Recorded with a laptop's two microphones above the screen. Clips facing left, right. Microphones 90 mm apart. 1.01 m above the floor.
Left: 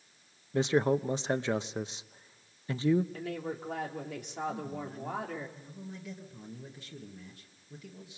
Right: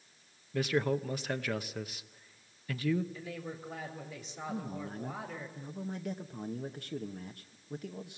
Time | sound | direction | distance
0.5 | a man speaking | 25° left (ahead or behind) | 0.8 m
3.1 | a woman speaking | 70° left (ahead or behind) | 3 m
4.5 | a man speaking | 55° right (ahead or behind) | 1.3 m